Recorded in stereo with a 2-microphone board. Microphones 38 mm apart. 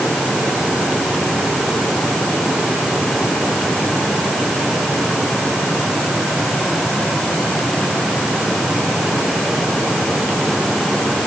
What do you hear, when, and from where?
Only background noise.